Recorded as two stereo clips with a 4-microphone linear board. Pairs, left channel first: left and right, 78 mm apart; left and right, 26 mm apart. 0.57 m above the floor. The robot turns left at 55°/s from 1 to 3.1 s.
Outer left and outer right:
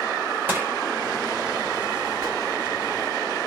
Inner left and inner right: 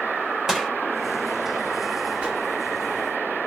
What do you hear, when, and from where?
0.5 s crushing: 25° right (ahead or behind), 1.4 m
2.2 s a whoosh: 45° right (ahead or behind), 2.5 m; by 2.4 s 35° right (ahead or behind), 2.5 m